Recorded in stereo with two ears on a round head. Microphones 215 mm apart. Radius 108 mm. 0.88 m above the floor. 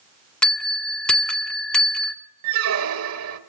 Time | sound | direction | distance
0.4 | a bell | 5° left (ahead or behind) | 0.8 m
2.4 | a squeak | 65° right (ahead or behind) | 0.8 m